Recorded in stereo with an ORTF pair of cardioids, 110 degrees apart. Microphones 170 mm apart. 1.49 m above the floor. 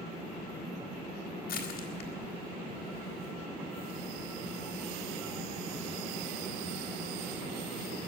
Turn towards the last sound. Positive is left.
turn(degrees=65)